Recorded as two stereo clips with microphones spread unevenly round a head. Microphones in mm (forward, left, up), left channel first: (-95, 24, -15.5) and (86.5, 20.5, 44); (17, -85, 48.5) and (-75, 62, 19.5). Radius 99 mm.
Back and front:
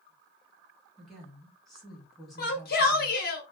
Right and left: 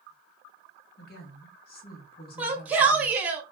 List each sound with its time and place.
1.0 s a woman speaking: 95° right, 1.2 m
2.4 s a shout: 160° right, 1.2 m